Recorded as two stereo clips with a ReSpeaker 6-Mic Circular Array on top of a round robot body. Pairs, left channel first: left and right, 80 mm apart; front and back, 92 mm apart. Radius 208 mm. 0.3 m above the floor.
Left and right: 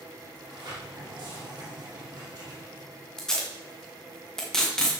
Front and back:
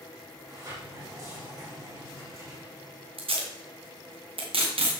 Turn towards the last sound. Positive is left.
turn(degrees=170)